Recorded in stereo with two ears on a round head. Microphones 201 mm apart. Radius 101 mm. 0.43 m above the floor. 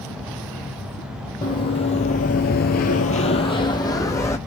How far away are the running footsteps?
About 1.0 m.